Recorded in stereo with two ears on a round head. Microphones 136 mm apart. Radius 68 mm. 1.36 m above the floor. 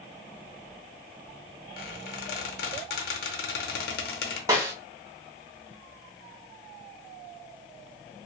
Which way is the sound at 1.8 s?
70° left (ahead or behind).